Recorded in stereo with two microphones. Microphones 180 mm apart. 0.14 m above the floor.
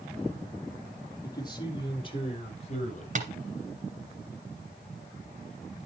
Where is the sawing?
I don't hear sawing.